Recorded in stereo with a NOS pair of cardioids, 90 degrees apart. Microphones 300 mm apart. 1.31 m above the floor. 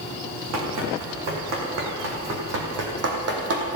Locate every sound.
0.5 s running footsteps: 70° right, 4.5 m; by 3.8 s 60° right, 3 m